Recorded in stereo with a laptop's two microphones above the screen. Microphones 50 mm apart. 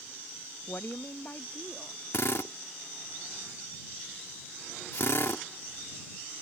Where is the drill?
60° left (ahead or behind).